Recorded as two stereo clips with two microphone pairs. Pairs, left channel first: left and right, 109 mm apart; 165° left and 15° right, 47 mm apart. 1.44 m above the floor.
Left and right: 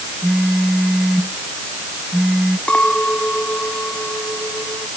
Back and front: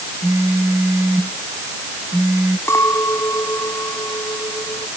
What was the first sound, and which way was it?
A phone buzzing, 5° right.